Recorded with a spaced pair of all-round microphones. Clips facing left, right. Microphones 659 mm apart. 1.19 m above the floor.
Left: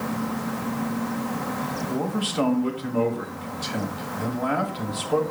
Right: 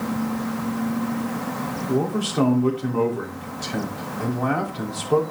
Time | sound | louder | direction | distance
1.9 | a man speaking | right 6 dB | 65° right (ahead or behind) | 3.5 m